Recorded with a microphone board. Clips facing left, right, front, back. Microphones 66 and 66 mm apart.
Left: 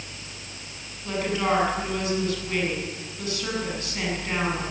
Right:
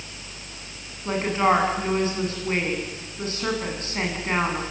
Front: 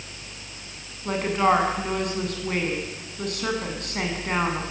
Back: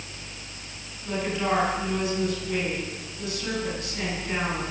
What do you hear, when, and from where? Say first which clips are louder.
1.1 s a woman speaking: right 4 dB, front 5 dB; 35° right, 8 m